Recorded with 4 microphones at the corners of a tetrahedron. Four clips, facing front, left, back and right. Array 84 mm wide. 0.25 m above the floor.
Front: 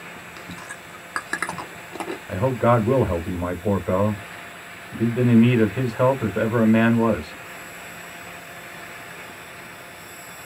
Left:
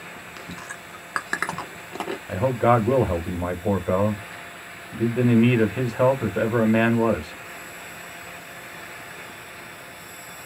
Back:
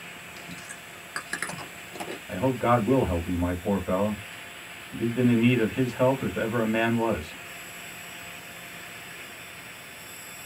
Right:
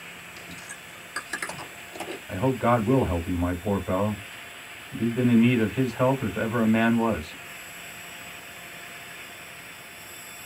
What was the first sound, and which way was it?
Chewing, 60° left.